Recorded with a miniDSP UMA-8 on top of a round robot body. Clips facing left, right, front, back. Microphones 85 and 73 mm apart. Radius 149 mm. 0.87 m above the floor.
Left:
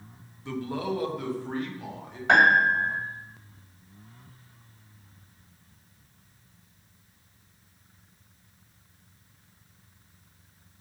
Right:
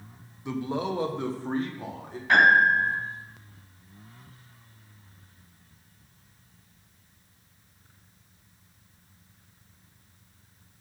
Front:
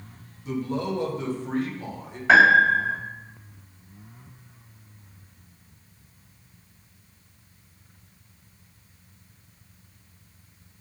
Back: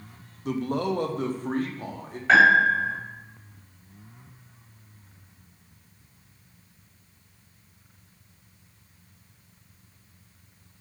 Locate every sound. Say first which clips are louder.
0.5 s a man speaking: right 1 dB, back 1 dB; 165° right, 1.1 m; by 2.2 s 140° right, 2 m
2.3 s a piano: right 1 dB, front 2 dB; 80° left, 2.5 m